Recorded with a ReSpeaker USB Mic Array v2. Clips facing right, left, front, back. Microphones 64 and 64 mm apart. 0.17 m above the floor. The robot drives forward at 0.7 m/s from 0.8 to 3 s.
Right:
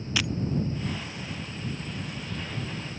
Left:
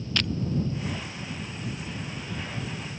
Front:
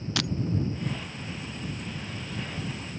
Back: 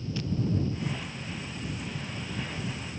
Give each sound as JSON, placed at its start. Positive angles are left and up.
{"t": 0.2, "sound": "breaking glass", "azimuth_deg": -10}